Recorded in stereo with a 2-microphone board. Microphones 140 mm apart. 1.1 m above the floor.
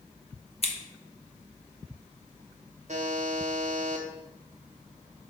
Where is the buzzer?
55° right (ahead or behind), 0.7 m.